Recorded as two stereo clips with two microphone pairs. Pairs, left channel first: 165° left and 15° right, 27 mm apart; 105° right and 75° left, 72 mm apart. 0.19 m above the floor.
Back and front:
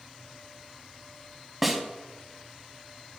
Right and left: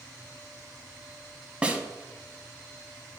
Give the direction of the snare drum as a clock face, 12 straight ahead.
11 o'clock.